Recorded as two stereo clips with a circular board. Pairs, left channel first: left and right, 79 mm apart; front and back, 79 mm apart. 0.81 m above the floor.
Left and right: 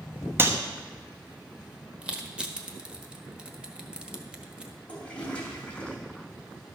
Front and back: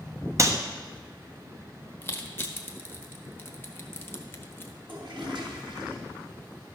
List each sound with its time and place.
0.4 s a clap: 145° right, 1.0 m
2.0 s crushing: 25° right, 1.1 m
4.9 s a toilet flushing: 165° left, 2.5 m